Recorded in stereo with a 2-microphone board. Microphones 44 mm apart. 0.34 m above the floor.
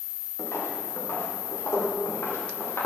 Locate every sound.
0.4 s footsteps: 85° left, 5.5 m; by 2.9 s 60° left (ahead or behind), 5.5 m